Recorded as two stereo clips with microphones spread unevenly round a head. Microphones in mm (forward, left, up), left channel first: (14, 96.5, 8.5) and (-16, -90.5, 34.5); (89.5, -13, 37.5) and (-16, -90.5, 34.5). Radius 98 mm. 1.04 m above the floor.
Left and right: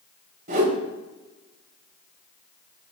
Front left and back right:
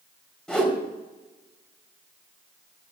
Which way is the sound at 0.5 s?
50° right.